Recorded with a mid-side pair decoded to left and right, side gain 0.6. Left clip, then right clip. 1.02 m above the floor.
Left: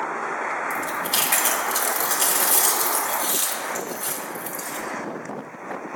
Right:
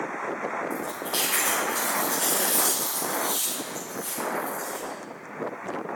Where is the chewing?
60° left, 1.4 m.